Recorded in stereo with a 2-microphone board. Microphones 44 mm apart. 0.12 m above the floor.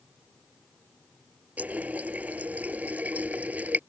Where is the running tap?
40° right (ahead or behind).